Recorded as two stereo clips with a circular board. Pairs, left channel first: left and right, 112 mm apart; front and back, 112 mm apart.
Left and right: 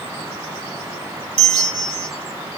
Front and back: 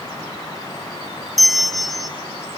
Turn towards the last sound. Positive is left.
turn(degrees=-90)